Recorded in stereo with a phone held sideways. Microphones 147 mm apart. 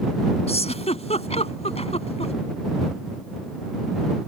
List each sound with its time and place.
0.5 s a giggle: 45° left (ahead or behind)